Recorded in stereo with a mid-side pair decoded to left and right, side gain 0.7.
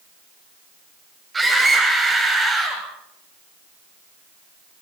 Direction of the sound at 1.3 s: 15° right.